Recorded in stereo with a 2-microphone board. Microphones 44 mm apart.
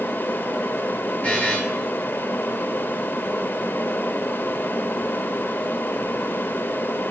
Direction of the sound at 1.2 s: 30° left (ahead or behind).